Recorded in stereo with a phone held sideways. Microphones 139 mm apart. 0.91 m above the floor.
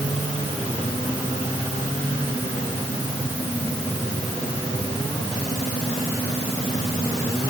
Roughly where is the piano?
No piano in this recording.